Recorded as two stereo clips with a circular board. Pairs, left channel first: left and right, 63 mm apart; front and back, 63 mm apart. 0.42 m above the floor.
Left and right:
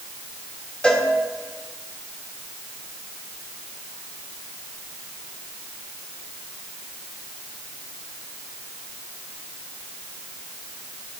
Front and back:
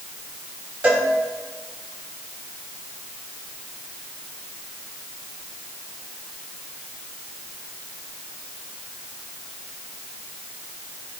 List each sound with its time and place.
0.8 s a cowbell: 135° left, 1.2 m